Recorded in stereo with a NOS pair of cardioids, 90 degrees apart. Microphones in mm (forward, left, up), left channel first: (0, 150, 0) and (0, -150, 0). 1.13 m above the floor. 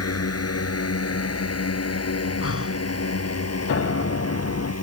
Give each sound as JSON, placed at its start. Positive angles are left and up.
{"t": 0.0, "sound": "a drone", "azimuth_deg": 50}
{"t": 2.4, "sound": "breathing", "azimuth_deg": 50}
{"t": 3.7, "sound": "a piano", "azimuth_deg": 50}